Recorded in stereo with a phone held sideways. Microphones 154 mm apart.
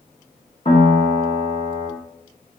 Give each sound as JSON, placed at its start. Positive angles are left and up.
{"t": 0.7, "sound": "a piano", "side_deg": 45, "distance_m": 2.5}